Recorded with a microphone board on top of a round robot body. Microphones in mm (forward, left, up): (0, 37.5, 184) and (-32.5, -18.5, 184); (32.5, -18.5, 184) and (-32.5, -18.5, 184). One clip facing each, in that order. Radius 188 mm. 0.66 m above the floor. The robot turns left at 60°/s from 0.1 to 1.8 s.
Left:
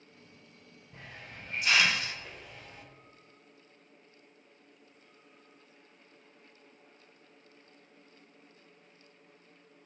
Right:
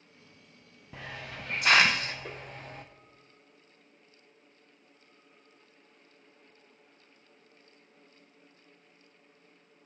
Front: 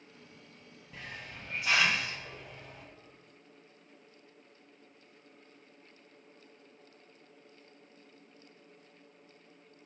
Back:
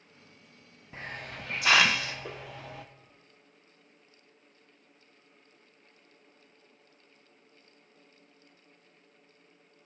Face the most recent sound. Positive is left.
turn(degrees=-170)